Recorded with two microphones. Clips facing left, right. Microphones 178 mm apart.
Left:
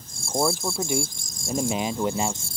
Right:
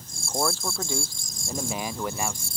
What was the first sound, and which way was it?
A man speaking, 15° left (ahead or behind).